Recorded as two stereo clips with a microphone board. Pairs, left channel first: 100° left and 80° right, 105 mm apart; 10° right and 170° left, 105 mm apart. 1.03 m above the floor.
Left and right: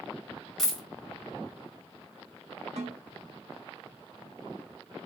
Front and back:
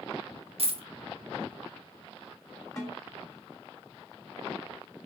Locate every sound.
0.6 s a dropped coin: 175° right, 0.7 m
2.8 s a snare drum: 70° right, 2 m